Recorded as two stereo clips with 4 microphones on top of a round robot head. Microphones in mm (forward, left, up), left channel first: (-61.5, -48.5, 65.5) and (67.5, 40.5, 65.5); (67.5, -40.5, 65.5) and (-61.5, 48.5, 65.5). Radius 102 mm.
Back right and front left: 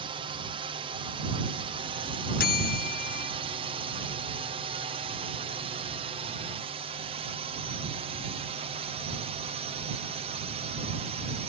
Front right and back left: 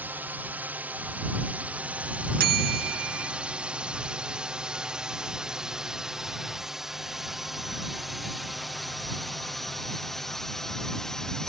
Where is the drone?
70° left; by 11.5 s 50° left.